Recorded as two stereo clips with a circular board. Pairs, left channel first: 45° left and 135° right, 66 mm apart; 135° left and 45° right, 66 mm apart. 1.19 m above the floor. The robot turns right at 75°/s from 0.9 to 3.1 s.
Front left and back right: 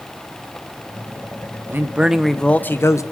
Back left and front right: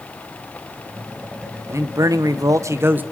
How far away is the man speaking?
About 0.8 m.